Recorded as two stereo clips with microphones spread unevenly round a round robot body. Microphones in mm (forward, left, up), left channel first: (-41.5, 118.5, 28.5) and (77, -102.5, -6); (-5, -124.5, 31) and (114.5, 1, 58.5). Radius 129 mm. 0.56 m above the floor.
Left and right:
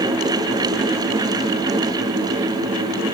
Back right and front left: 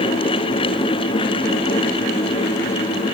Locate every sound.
Only background noise.